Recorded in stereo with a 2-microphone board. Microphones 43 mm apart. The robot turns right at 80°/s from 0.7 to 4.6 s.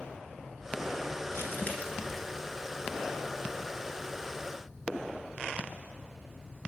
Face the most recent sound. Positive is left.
turn(degrees=10)